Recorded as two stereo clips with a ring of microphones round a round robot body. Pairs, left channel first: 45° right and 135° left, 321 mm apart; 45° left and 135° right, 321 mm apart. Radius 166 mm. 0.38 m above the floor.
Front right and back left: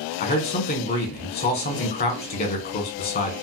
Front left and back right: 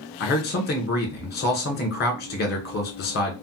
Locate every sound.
0.2 s a man speaking: straight ahead, 1.2 m